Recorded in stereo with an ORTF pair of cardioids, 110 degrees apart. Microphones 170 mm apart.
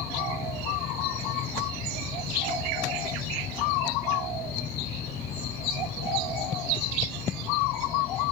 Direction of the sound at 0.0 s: 65° left.